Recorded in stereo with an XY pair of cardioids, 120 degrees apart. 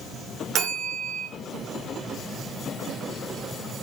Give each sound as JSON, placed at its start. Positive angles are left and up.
{"t": 0.6, "sound": "a bell", "azimuth_deg": -55, "distance_m": 0.7}